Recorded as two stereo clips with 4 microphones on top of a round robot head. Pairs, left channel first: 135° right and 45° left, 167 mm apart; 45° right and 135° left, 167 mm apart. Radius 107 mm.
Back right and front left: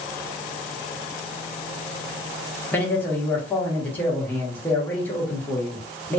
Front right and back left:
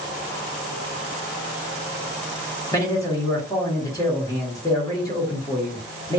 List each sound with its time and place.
2.7 s a man speaking: 75° right, 1.2 m